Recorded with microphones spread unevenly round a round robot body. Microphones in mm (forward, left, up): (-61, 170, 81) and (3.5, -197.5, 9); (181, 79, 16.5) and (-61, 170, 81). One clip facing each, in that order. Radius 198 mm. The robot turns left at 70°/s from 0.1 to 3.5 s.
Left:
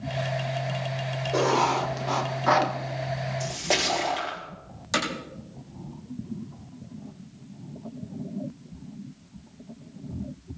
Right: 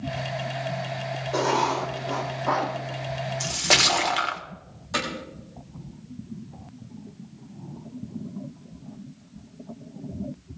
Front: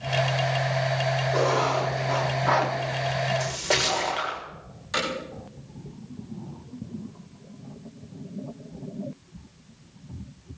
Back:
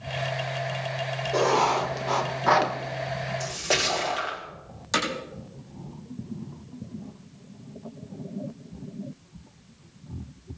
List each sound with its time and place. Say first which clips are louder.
1.3 s writing: left 1 dB, back 2 dB; 140° right, 1.7 m; by 2.7 s 120° left, 1.7 m
3.4 s a splash: even, front 1 dB; 95° right, 1.5 m; by 4.4 s 105° right, 1.5 m
4.9 s hammering: left 1 dB, back 1 dB; 140° left, 7 m